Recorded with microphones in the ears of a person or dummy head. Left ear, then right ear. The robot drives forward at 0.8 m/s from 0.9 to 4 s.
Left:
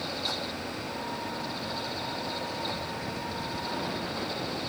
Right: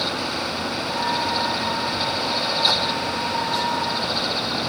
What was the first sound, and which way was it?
Only background noise.